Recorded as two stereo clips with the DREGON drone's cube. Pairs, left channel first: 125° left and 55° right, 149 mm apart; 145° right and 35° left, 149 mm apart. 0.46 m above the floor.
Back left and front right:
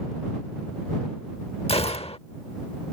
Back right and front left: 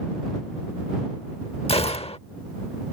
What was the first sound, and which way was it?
A gunshot, 170° left.